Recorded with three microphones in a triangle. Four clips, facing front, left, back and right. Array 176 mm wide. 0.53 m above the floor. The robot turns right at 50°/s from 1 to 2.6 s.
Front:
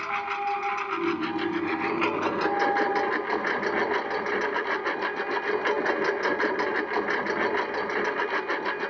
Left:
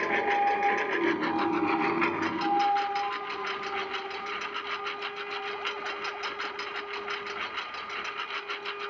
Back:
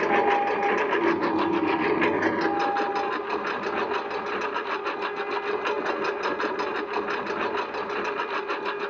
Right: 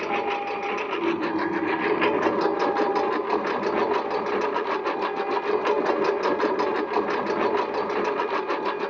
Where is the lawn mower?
165° right; by 8.9 s 85° right.